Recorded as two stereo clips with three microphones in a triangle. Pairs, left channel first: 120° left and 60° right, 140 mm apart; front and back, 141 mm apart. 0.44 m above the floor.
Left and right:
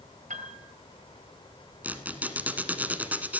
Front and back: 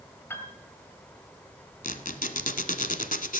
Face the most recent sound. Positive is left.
turn(degrees=20)